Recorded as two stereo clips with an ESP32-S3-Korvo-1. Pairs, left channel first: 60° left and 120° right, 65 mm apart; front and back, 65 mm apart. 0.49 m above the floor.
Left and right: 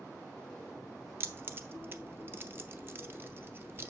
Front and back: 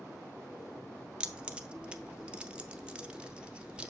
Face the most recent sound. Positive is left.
turn(degrees=-120)